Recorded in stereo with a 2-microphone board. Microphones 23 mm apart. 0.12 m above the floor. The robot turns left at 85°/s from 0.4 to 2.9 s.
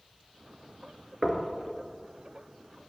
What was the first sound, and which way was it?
Knocking, 10° right (ahead or behind).